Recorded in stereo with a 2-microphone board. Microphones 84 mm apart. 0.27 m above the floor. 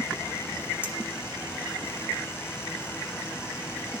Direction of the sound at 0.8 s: 25° left (ahead or behind).